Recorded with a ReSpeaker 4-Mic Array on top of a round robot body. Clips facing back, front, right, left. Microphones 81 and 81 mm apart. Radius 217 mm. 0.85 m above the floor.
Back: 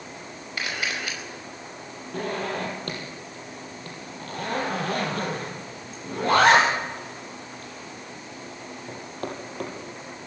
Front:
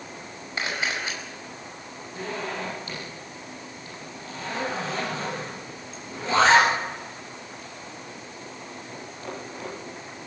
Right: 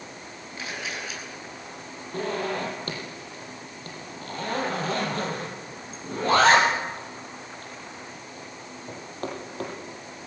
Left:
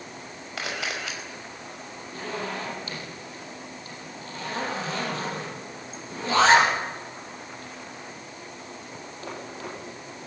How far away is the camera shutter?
About 5.5 m.